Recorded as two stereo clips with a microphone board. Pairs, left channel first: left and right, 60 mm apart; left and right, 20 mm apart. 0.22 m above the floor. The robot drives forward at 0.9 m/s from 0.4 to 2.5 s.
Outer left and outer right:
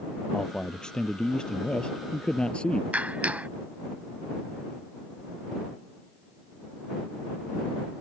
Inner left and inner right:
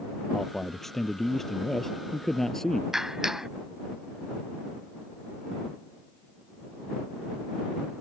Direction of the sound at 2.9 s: 25° right (ahead or behind).